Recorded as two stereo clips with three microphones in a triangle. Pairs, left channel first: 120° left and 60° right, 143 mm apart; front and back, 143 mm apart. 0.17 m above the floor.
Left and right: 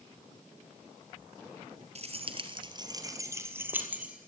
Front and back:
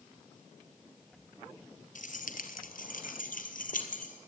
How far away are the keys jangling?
About 2.5 m.